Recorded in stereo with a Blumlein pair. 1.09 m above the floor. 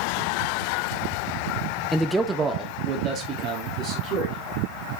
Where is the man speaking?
5° left, 0.7 m; by 4.6 s 35° right, 3 m.